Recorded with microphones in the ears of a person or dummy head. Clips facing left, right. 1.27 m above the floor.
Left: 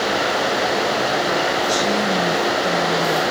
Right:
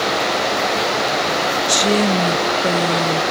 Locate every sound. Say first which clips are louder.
1.7 s a woman speaking: right 3 dB; 45° right (ahead or behind), 0.8 m